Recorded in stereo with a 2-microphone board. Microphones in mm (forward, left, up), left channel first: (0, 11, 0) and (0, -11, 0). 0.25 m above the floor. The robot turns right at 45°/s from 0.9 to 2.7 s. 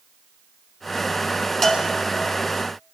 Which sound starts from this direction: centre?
A bell, at 1.6 s.